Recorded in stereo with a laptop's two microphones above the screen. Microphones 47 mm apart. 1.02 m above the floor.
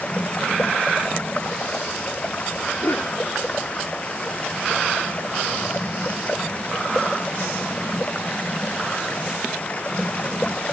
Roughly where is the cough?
Left.